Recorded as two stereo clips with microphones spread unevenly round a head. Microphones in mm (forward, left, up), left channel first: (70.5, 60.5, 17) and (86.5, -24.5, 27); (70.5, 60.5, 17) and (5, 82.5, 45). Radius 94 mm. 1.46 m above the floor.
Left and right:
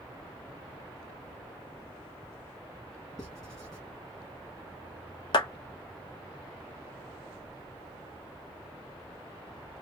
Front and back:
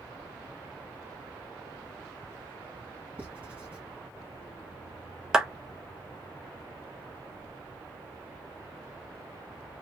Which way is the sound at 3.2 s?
165° right.